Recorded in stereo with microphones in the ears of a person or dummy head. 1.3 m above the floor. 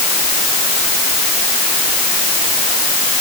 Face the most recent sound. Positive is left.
No sound to turn to.